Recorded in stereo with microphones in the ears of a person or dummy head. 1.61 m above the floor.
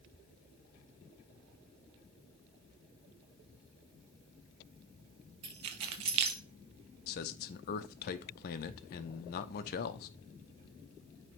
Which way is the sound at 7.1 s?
50° left (ahead or behind).